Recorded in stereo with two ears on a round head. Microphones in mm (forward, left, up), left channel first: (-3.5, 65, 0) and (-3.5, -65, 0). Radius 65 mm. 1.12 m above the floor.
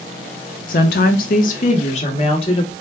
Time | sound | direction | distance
0.7 | a woman speaking | 60° left (ahead or behind) | 0.5 m